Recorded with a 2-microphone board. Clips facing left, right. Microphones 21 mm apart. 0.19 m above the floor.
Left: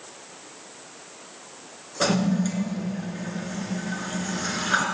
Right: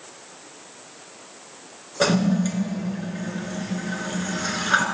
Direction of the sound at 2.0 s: 15° right (ahead or behind).